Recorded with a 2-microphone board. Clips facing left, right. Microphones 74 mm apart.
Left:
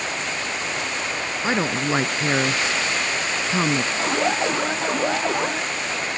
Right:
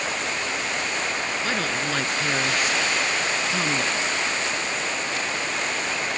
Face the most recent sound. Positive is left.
turn(degrees=75)  # may be behind; listen again after turning